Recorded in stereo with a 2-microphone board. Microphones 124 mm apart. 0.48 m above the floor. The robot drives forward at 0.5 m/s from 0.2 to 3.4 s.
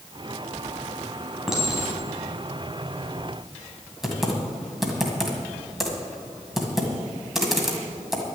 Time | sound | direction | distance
1.5 | a clink | 5° right (ahead or behind) | 3 m
4.0 | typing on a keyboard | 5° right (ahead or behind) | 1.7 m